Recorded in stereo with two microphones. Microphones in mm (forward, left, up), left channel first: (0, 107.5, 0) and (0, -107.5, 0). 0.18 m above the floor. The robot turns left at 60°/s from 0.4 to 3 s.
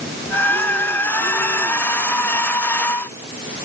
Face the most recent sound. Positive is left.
No sound to turn to.